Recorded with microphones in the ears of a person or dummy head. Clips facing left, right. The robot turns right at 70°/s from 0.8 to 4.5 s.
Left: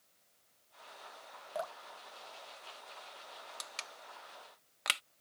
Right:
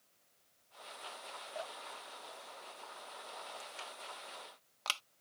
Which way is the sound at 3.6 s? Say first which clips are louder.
Right 3 dB; 80° left.